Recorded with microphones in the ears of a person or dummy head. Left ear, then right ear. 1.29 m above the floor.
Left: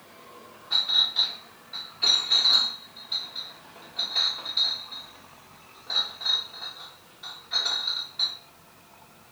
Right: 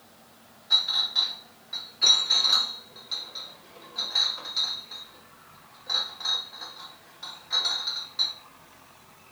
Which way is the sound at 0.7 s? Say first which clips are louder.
Even; 75° right (ahead or behind).